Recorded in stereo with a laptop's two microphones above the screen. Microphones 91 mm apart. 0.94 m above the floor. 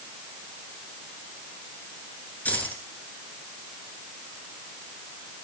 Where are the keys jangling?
15° left (ahead or behind), 9 m.